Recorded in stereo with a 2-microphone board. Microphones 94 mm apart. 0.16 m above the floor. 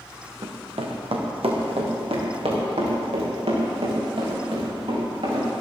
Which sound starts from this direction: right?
Running footsteps, at 0.4 s.